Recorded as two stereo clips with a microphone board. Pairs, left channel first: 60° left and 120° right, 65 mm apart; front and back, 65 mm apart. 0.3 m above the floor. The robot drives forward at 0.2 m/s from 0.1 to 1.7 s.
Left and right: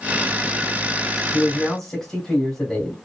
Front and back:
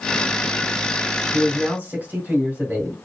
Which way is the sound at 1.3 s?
135° left.